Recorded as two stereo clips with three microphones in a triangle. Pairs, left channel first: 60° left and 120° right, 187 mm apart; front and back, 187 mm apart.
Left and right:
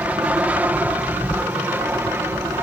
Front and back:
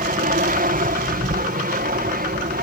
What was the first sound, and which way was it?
An aircraft, 160° left.